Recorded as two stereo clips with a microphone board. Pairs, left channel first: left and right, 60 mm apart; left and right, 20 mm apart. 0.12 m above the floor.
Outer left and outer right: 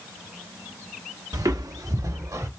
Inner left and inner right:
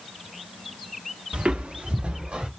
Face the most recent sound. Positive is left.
turn(degrees=-60)  # may be behind; listen again after turning